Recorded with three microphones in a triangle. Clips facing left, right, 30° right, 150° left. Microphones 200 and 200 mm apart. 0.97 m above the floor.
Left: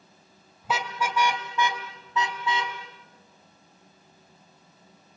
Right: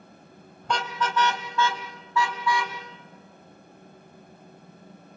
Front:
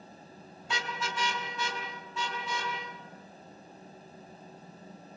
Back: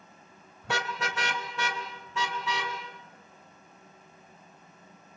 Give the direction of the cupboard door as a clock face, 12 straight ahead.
I don't hear a cupboard door.